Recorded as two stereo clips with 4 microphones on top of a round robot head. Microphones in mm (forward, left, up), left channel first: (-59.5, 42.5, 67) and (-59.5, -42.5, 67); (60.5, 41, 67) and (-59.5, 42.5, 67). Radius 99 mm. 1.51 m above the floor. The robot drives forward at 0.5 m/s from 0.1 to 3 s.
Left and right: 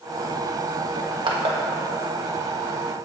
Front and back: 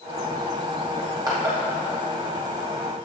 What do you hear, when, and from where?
1.0 s crushing: 110° right, 1.2 m; by 1.6 s 125° right, 1.3 m